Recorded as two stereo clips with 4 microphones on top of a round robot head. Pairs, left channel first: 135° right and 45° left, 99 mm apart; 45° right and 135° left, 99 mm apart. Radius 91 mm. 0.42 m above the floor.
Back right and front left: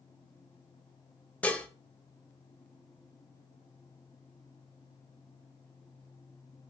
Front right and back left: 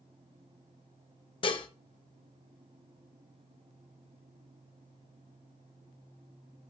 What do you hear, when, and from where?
1.4 s dishes clattering: 60° right, 1.2 m